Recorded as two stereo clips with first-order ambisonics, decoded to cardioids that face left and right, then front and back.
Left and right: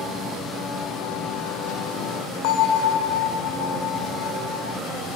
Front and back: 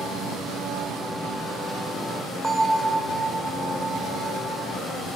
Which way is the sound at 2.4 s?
95° left.